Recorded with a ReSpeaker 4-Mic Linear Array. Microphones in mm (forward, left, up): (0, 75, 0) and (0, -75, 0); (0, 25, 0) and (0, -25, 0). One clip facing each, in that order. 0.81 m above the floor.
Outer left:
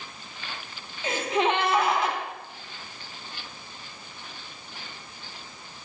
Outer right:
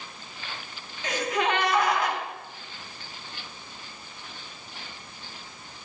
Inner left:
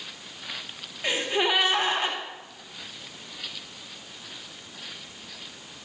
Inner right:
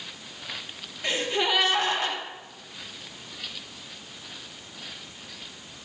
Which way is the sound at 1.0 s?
25° left (ahead or behind).